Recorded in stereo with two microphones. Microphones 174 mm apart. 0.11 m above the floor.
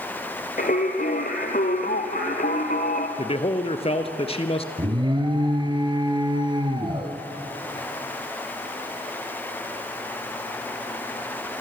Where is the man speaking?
35° left (ahead or behind), 1.7 m.